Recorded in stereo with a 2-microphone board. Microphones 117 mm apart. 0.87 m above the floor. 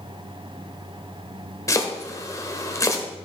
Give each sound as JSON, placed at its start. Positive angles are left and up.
{"t": 1.7, "sound": "chopping", "side_deg": 25, "distance_m": 1.2}